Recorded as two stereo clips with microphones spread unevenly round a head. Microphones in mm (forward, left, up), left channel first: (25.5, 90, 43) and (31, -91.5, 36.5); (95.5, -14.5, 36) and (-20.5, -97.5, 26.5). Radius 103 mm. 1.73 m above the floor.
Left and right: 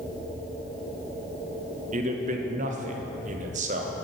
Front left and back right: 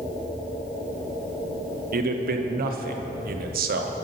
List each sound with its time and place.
1.9 s a man speaking: 140° right, 0.9 m